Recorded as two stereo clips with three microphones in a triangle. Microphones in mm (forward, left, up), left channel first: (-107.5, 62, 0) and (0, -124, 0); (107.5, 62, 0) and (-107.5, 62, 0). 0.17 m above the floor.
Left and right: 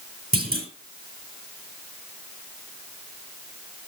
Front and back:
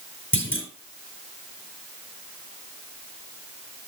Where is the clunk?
20° right, 4 m.